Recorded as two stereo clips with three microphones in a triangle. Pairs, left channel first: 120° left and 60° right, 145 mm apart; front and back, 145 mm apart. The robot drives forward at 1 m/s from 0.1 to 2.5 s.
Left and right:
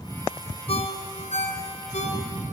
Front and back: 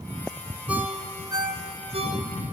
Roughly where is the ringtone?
Left.